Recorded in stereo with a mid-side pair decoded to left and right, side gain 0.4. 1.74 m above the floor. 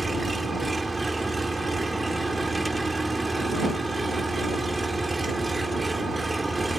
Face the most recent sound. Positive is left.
turn(degrees=-15)